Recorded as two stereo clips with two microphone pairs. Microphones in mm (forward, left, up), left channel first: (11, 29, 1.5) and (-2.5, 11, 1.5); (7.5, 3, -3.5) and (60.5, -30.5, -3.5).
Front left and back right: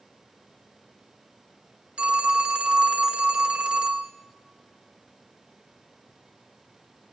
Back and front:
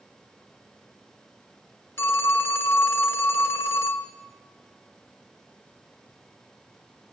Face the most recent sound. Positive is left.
turn(degrees=-160)